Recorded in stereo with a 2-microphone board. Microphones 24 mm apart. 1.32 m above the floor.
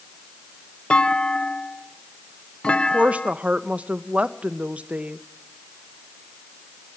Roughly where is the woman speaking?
Right.